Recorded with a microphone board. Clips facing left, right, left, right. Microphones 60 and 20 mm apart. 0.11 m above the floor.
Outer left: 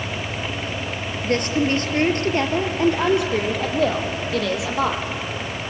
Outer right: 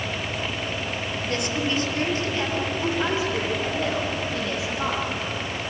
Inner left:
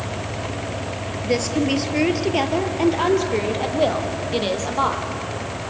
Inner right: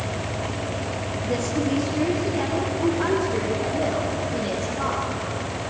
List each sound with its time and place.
1.2 s a woman speaking: 45° left (ahead or behind), 2.5 m; by 5.0 s 70° left (ahead or behind), 4 m